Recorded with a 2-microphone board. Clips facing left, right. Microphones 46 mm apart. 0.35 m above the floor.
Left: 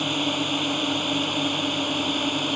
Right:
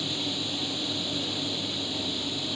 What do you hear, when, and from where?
0.0 s a drone: 45° left (ahead or behind); by 2.6 s 50° left (ahead or behind)